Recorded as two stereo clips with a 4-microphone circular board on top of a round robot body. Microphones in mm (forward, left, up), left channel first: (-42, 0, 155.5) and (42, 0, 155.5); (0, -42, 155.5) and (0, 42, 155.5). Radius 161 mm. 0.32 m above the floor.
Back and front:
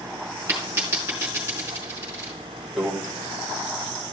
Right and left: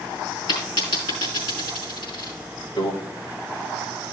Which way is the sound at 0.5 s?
65° right.